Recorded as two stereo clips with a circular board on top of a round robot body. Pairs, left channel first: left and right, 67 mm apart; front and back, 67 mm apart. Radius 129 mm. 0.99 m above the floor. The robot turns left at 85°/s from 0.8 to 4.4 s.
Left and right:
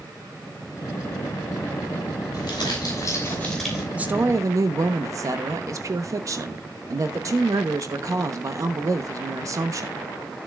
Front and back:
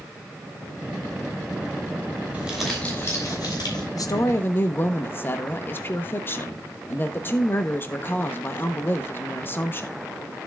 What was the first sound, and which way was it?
Crumpling, 115° left.